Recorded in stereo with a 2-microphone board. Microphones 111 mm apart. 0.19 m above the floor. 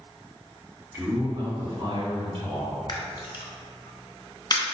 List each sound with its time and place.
0.9 s a man speaking: 20° right (ahead or behind), 1.4 m; by 2.7 s 55° right (ahead or behind), 2 m
2.9 s a camera shutter: 40° left (ahead or behind), 0.9 m